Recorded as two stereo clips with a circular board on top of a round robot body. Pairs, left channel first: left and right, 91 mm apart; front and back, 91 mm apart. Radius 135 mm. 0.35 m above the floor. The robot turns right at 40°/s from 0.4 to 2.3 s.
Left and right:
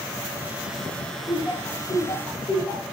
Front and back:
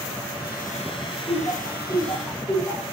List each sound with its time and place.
1.3 s laughter: 20° left, 1.9 m; by 2.8 s 65° left, 1.9 m